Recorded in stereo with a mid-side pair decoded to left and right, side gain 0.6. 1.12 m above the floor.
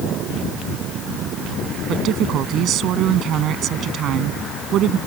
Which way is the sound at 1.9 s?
55° right.